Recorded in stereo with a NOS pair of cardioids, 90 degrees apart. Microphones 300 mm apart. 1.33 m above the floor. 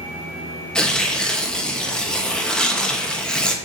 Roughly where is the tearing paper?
Ahead.